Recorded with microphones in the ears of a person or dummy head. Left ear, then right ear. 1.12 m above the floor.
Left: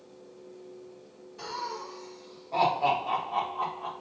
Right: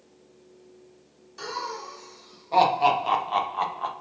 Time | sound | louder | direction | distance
1.4 | laughter | right 3 dB | 70° right (ahead or behind) | 1.6 m